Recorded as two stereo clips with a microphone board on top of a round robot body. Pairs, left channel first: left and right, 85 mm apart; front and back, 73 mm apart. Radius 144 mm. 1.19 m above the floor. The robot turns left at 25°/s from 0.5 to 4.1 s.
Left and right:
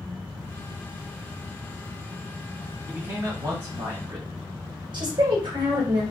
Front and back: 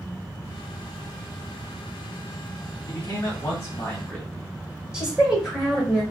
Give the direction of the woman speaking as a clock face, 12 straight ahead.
3 o'clock.